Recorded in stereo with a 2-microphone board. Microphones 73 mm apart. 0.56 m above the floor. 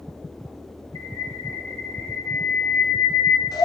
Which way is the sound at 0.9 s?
80° left.